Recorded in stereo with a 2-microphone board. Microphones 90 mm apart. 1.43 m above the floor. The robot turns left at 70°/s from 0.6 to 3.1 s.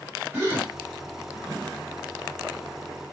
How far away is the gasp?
About 2 m.